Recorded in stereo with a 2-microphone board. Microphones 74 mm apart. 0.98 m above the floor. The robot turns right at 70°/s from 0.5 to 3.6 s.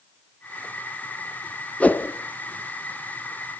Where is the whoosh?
15° left (ahead or behind), 1.0 m; by 2.1 s 30° left (ahead or behind), 1.0 m.